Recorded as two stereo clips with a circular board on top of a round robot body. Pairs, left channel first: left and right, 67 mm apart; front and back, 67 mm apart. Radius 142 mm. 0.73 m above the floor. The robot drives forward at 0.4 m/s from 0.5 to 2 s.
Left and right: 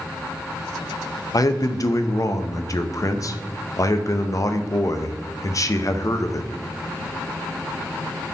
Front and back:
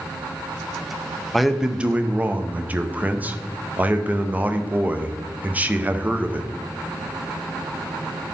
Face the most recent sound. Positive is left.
turn(degrees=115)